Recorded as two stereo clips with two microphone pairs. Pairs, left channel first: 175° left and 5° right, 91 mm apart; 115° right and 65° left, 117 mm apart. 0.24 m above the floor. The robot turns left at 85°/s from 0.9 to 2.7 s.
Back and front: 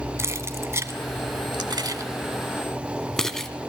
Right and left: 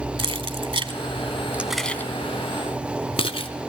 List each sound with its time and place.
0.2 s keys jangling: 50° left, 1.2 m; by 3.5 s 105° right, 1.2 m